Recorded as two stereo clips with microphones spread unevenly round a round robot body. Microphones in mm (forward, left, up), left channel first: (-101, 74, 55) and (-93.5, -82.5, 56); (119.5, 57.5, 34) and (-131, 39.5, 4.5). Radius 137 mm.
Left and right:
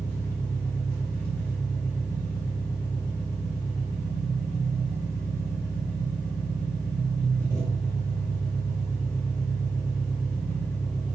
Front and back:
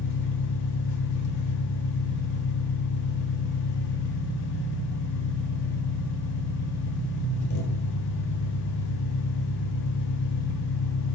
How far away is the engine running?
About 1.5 m.